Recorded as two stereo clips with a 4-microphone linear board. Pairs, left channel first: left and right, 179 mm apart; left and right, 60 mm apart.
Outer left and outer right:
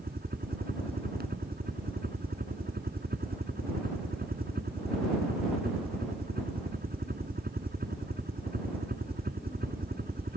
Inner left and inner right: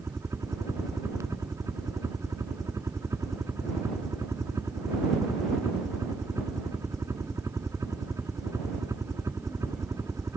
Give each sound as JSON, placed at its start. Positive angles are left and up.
{"t": 0.0, "sound": "a helicopter", "side_deg": -60}